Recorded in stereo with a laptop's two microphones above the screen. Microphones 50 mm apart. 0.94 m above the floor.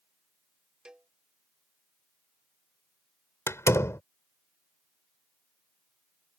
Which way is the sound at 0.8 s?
20° right (ahead or behind).